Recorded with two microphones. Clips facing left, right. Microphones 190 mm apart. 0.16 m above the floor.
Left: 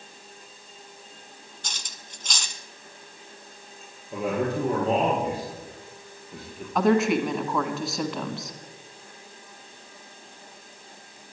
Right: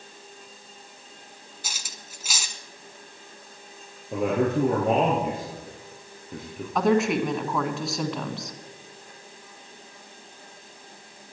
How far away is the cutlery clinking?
About 0.8 m.